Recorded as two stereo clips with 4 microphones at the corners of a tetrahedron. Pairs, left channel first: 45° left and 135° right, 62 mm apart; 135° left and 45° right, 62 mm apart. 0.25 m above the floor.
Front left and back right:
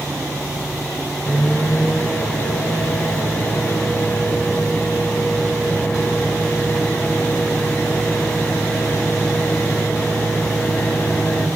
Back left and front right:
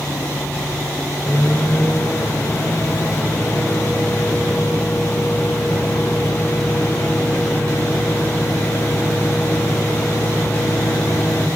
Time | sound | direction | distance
1.3 | a microwave | 110° left | 1.5 m